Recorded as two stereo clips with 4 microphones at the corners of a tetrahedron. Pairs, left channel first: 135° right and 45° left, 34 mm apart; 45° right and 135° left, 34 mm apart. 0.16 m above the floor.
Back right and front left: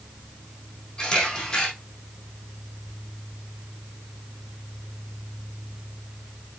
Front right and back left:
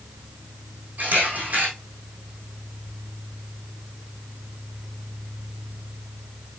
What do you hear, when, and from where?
1.0 s a camera shutter: 170° left, 4.5 m